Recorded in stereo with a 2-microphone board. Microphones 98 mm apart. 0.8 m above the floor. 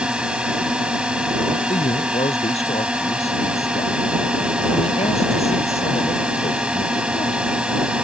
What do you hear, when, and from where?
0.0 s a drone: 10° right (ahead or behind)
1.7 s a man speaking: 85° left